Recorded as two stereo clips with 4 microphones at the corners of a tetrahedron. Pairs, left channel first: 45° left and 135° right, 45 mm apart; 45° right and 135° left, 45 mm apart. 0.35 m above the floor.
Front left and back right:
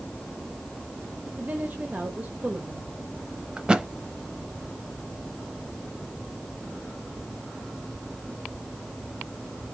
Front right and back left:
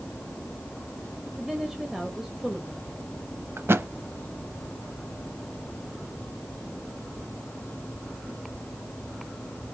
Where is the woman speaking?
150° right, 1.1 m.